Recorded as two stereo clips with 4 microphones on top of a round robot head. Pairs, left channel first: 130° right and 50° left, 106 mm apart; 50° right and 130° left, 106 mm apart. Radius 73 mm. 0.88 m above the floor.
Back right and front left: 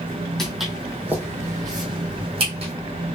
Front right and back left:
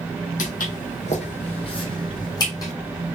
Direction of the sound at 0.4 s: 45° right.